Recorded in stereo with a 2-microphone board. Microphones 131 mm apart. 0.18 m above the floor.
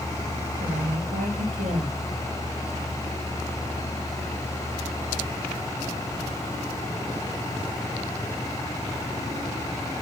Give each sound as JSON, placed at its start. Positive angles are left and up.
{"t": 0.6, "sound": "a woman speaking", "side_deg": -70, "distance_m": 3.5}